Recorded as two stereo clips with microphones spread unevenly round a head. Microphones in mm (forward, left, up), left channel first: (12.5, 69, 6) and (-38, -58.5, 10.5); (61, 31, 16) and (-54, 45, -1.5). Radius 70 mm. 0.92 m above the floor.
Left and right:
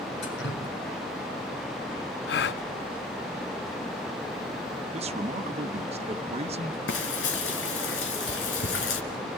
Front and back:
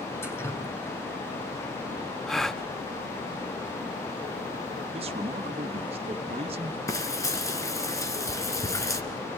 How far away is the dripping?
About 5.5 m.